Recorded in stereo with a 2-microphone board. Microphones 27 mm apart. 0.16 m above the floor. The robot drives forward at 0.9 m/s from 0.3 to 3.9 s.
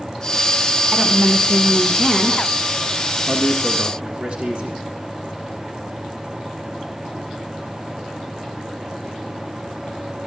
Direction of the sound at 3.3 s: 40° right (ahead or behind).